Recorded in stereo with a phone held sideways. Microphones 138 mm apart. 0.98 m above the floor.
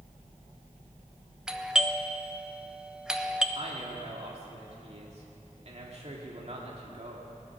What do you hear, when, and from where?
1.5 s a doorbell: 5° right (ahead or behind), 0.9 m
3.5 s a man speaking: 50° right (ahead or behind), 2 m